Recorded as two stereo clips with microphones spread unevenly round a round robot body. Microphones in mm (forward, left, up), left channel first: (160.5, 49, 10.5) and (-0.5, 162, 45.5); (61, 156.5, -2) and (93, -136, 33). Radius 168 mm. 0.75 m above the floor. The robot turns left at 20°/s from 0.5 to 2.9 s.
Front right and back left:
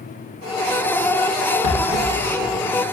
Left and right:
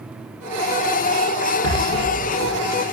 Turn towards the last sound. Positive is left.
turn(degrees=-60)